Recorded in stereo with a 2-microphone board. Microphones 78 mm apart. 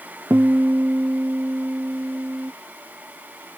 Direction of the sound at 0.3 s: 35° right (ahead or behind).